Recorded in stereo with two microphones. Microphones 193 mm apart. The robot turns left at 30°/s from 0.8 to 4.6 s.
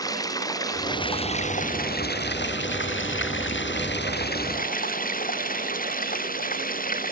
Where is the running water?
160° left; by 7.1 s 45° left.